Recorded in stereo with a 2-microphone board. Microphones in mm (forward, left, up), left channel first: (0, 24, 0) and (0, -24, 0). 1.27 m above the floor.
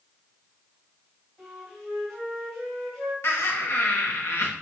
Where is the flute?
5° right (ahead or behind), 3 m.